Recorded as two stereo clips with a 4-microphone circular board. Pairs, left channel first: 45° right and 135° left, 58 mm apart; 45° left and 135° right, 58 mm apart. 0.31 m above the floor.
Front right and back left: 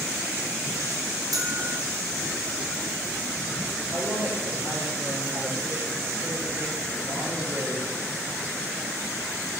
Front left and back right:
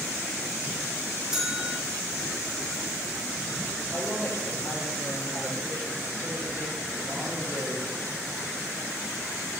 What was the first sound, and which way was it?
A bell, 145° left.